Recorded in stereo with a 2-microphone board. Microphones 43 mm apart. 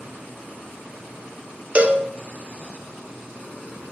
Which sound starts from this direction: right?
A cowbell, at 1.8 s.